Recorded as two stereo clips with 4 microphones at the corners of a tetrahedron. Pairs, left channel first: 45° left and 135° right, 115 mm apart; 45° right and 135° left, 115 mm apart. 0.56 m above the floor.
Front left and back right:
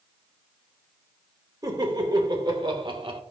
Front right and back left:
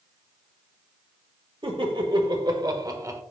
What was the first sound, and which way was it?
Laughter, 170° left.